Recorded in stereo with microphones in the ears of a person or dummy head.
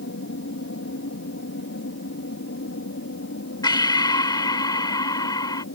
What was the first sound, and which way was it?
An aircraft, 60° left (ahead or behind).